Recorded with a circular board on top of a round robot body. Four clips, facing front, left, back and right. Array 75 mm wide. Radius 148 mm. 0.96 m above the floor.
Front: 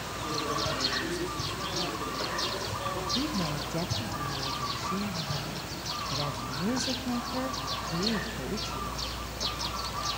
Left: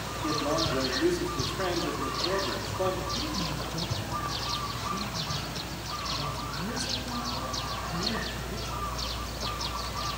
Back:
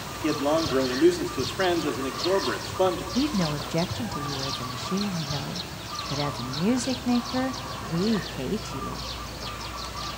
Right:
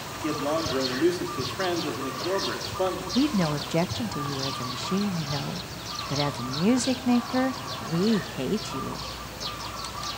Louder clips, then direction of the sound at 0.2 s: Right 2 dB, back 9 dB; 165° right.